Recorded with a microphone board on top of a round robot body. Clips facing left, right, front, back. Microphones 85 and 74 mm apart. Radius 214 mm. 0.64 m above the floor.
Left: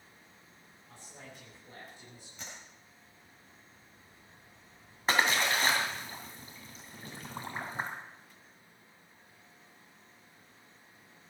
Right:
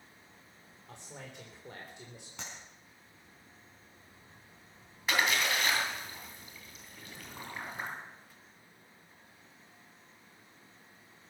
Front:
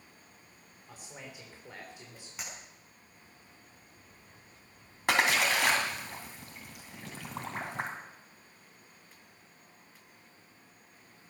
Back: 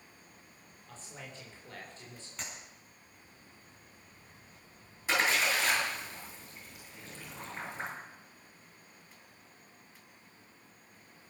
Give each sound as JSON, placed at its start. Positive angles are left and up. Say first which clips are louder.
{"t": 0.9, "sound": "a man speaking", "louder": "right 3 dB, front 1 dB", "azimuth_deg": -75, "distance_m": 3.5}
{"t": 2.4, "sound": "a clap", "louder": "right 2 dB, even", "azimuth_deg": -80, "distance_m": 6.5}
{"t": 5.1, "sound": "a splash", "louder": "left 2 dB, front 2 dB", "azimuth_deg": 30, "distance_m": 3.0}